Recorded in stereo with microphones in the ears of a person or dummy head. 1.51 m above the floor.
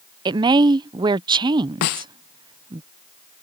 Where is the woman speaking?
25° right (ahead or behind).